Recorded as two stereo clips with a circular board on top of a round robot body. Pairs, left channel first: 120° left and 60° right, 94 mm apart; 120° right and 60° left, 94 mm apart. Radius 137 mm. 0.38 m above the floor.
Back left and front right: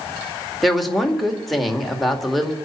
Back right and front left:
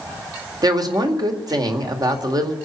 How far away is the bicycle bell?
No bicycle bell in this recording.